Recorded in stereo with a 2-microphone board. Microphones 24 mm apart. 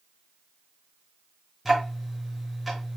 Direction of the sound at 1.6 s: Centre (ahead or behind).